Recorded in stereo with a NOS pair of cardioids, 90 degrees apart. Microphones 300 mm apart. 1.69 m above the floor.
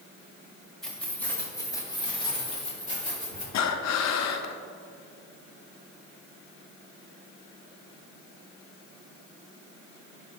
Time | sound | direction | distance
0.8 | keys jangling | straight ahead | 2.5 m
3.5 | breathing | 65° left | 0.8 m